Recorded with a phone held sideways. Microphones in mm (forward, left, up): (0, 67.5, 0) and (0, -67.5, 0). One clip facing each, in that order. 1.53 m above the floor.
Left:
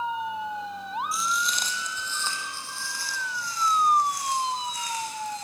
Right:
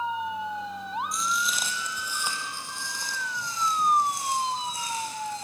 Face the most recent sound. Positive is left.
turn(degrees=-30)  # may be behind; listen again after turning